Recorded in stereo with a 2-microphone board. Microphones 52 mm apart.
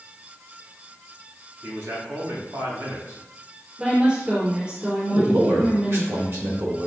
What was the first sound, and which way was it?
A man speaking, 60° right (ahead or behind).